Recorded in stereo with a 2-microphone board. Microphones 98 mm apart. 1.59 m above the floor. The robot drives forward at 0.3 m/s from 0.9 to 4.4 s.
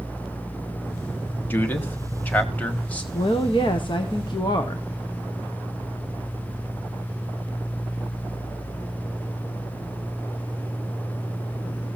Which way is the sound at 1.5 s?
20° left (ahead or behind).